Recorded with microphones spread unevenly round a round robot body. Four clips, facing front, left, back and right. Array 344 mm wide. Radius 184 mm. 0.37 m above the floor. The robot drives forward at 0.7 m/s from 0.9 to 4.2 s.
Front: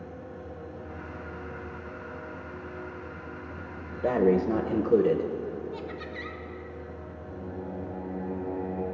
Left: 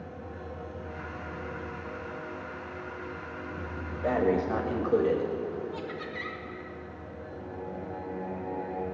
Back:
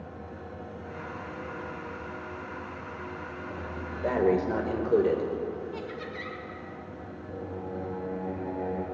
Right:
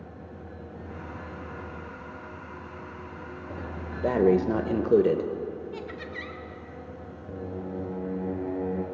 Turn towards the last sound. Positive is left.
turn(degrees=-85)